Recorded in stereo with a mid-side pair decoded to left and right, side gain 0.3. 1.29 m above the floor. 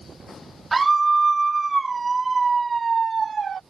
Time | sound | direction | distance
0.7 | a scream | 40° right | ?